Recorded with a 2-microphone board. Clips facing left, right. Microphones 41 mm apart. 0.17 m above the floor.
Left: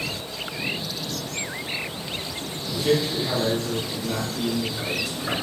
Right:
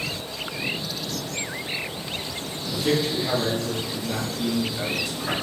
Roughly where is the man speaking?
Centre.